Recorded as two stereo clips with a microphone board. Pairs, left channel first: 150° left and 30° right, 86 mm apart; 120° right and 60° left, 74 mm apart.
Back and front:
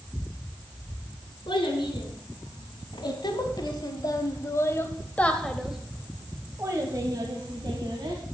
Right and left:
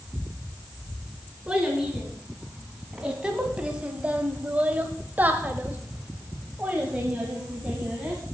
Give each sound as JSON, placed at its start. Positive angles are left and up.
{"t": 1.5, "sound": "a child speaking", "azimuth_deg": 140, "distance_m": 2.5}